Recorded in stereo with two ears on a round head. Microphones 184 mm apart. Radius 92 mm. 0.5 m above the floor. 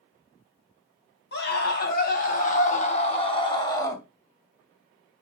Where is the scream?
55° left (ahead or behind), 3.5 m; by 4.0 s 15° left (ahead or behind), 2.5 m.